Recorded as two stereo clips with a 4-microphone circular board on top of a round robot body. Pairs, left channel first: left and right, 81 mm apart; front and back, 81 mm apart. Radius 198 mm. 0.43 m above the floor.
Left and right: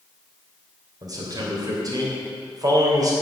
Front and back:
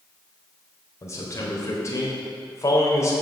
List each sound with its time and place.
1.0 s a man speaking: 50° right, 3.5 m